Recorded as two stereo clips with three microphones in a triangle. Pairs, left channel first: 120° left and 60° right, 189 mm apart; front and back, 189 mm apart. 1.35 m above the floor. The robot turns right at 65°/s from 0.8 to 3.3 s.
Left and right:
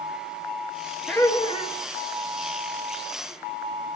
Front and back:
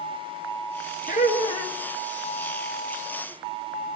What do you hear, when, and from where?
1.1 s laughter: 35° left, 3 m; by 1.8 s 80° left, 3 m